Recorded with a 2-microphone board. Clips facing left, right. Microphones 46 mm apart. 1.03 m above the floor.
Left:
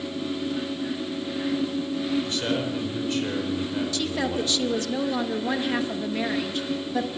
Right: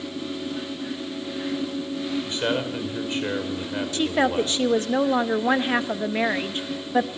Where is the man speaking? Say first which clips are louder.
Right 1 dB; 30° right (ahead or behind), 5 m.